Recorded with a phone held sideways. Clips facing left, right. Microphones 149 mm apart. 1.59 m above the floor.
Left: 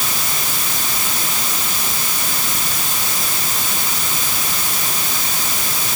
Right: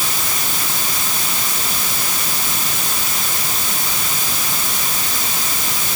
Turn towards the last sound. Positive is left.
No sound to turn to.